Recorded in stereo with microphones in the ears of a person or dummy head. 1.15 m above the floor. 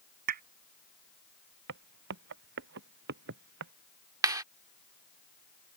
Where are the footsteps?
70° right (ahead or behind); by 3.7 s 65° right (ahead or behind).